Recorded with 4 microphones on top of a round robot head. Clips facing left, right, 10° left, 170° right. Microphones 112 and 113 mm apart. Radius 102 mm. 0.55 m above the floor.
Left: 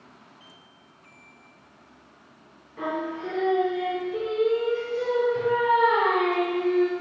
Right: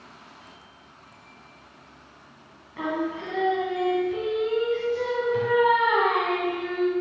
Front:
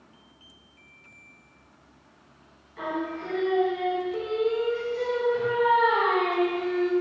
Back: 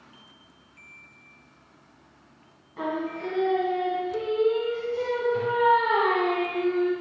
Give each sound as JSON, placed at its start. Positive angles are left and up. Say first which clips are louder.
{"t": 2.8, "sound": "singing", "louder": "right 1 dB, back 1 dB", "azimuth_deg": -110, "distance_m": 1.4}